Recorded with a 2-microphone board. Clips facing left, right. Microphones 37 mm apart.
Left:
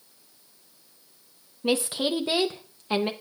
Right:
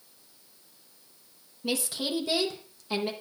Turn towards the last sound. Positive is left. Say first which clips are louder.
# left 6 dB
turn(degrees=30)  # may be behind; listen again after turning